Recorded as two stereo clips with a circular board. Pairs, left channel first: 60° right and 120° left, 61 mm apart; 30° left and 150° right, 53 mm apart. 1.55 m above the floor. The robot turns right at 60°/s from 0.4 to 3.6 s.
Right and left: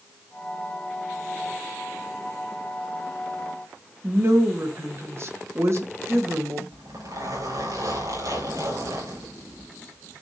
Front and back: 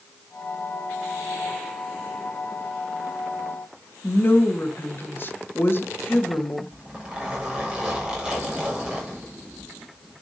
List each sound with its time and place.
4.0 s a woman speaking: 75° left, 2.0 m
6.7 s a zipper: 140° left, 6.5 m